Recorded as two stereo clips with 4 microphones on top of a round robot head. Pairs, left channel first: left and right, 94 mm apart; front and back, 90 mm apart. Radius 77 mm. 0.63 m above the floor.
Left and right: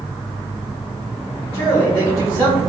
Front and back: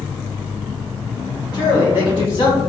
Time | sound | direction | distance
1.5 | a man speaking | 50° right | 2 m